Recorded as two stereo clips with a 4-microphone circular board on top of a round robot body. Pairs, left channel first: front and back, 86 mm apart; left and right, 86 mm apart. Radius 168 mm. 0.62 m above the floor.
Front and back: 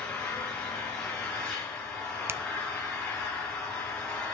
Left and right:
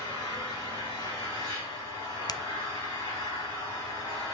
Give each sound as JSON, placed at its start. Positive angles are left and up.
{"t": 0.0, "sound": "an engine running", "azimuth_deg": 80, "distance_m": 7.5}
{"t": 2.3, "sound": "a finger snap", "azimuth_deg": 120, "distance_m": 0.6}